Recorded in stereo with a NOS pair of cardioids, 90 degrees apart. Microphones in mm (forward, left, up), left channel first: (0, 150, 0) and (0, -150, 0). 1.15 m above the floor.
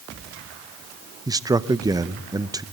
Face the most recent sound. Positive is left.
turn(degrees=-10)